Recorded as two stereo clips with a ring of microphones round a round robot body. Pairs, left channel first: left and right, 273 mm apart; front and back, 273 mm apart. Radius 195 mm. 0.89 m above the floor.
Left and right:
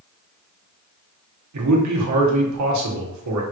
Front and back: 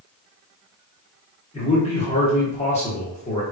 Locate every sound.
1.5 s a man speaking: 75° right, 1.5 m